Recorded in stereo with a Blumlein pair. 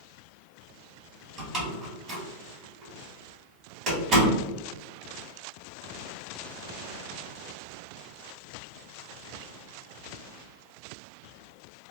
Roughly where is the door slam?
Ahead right.